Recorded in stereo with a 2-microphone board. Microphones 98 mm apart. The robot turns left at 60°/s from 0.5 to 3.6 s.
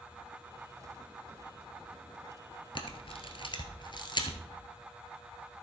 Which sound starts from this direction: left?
A camera shutter, at 2.8 s.